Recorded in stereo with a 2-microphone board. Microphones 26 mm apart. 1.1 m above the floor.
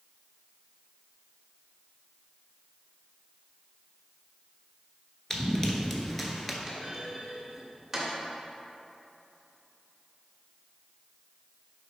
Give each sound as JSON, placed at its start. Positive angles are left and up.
{"t": 5.3, "sound": "running footsteps", "side_deg": 20, "distance_m": 1.1}
{"t": 6.7, "sound": "a clunk", "side_deg": -10, "distance_m": 1.9}